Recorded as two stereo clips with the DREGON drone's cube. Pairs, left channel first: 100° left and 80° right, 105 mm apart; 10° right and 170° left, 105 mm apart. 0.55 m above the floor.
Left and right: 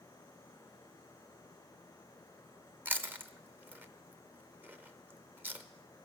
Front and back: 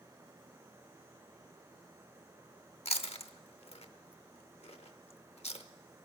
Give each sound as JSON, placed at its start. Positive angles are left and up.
{"t": 2.9, "sound": "chewing", "azimuth_deg": -5, "distance_m": 0.6}